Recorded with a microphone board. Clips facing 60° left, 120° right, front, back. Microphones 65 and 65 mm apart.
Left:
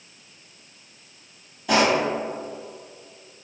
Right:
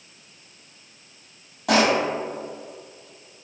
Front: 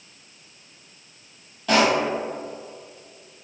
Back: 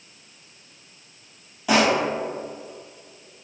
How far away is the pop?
About 1.2 m.